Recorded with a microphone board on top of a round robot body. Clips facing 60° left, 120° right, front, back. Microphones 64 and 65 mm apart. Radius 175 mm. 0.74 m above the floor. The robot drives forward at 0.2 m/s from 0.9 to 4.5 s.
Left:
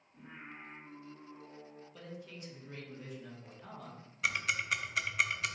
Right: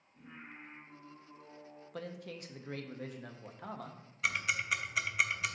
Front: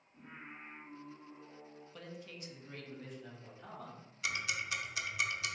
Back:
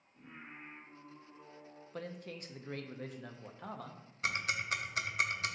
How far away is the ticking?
About 0.7 m.